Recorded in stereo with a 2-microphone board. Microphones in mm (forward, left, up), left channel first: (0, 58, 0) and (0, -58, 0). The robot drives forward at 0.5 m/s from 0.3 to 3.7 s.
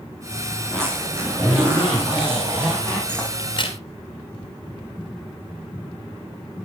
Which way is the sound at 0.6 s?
25° right (ahead or behind).